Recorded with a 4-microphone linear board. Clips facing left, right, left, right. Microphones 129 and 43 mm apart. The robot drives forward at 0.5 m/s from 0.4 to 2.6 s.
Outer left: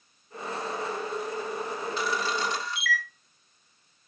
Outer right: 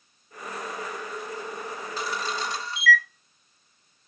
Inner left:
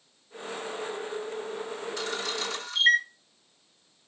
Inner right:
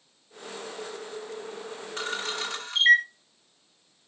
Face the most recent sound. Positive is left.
turn(degrees=-30)  # may be behind; listen again after turning